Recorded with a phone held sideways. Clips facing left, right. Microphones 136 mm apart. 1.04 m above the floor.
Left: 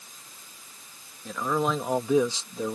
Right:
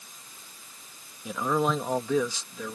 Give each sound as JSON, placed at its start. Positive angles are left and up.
{"t": 1.2, "sound": "a man speaking", "side_deg": -10}